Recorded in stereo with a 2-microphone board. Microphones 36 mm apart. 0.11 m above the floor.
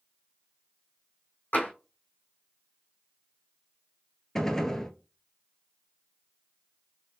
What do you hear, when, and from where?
1.5 s tapping: 70° left (ahead or behind), 2 m
4.3 s a gunshot: 15° left (ahead or behind), 0.7 m